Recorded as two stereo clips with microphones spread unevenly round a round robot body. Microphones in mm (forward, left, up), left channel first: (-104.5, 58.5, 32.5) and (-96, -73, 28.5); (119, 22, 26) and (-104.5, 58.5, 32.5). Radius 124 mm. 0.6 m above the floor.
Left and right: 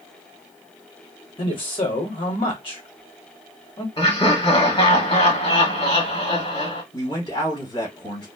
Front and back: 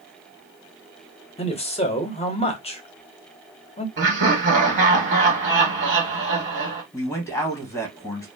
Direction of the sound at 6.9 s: 60° left.